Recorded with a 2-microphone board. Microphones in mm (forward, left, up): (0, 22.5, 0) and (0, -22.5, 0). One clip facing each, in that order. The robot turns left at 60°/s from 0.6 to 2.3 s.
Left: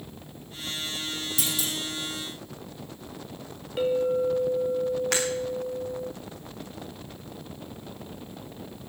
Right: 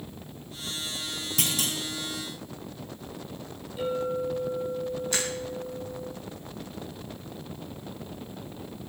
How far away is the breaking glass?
About 7 m.